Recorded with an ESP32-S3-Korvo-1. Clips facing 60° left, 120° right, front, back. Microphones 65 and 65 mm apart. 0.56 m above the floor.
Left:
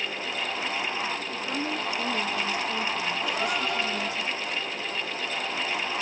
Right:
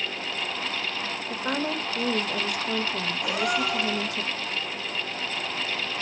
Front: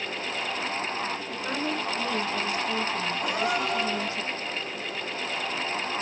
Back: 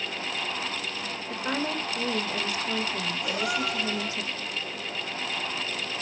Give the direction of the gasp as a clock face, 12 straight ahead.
1 o'clock.